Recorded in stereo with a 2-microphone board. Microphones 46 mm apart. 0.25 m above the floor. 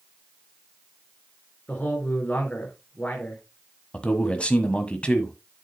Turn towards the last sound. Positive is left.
turn(degrees=25)  # may be behind; listen again after turning